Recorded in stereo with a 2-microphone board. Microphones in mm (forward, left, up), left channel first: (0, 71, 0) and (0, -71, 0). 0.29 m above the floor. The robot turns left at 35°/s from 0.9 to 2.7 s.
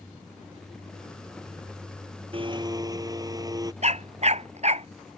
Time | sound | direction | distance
2.3 | a blender | 40° right (ahead or behind) | ?
3.8 | a dog barking | 50° right (ahead or behind) | ?